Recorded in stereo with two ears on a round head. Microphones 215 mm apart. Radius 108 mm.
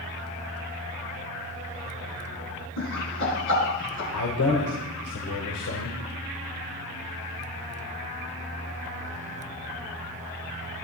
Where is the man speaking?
70° left (ahead or behind), 2.5 m.